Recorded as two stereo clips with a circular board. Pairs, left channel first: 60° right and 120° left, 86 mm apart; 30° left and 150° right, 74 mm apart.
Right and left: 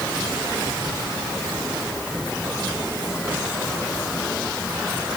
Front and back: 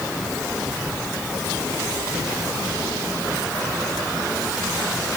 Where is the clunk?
I don't hear a clunk.